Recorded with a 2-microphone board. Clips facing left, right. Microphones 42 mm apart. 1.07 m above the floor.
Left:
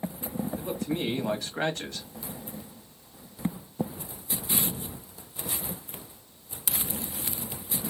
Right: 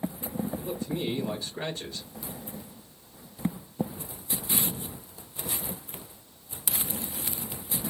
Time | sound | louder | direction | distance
0.6 | a man speaking | left 2 dB | 80° left | 1.2 m